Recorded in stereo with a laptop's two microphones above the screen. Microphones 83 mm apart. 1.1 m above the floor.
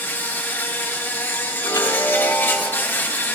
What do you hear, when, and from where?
0.0 s an insect: 25° left (ahead or behind), 0.9 m
1.6 s a chime: 55° left (ahead or behind), 4 m